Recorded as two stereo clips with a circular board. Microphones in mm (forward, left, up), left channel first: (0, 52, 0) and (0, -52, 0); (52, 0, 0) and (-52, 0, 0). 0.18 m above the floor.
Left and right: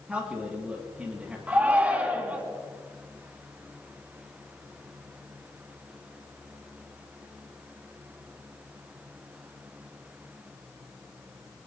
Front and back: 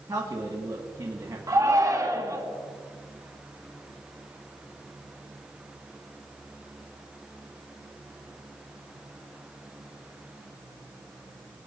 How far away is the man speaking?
About 1.8 m.